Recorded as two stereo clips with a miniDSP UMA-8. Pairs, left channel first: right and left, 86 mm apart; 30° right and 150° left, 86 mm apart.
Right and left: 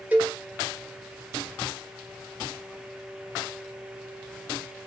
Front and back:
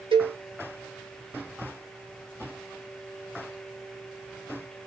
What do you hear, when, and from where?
0.1 s a cowbell: 160° left, 0.8 m